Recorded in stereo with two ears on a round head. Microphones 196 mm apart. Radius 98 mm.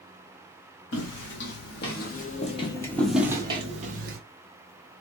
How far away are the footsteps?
About 1.8 m.